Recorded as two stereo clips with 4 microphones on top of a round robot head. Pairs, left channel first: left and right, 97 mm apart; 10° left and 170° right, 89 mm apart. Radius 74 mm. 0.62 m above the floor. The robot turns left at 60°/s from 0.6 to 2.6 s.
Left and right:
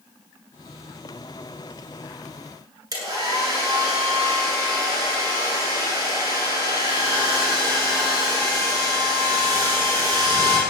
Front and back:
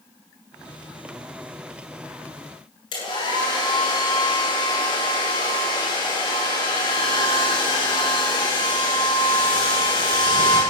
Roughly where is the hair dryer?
Ahead right.